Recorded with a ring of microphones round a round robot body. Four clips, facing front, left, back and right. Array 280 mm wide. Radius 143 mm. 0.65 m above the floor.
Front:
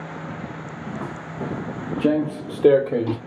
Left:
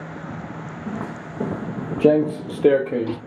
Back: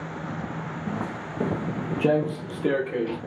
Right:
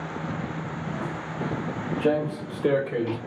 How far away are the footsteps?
About 2 m.